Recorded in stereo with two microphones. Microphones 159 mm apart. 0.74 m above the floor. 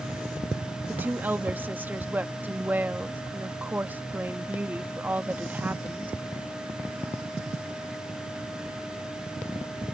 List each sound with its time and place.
0.9 s a woman speaking: 10° right (ahead or behind)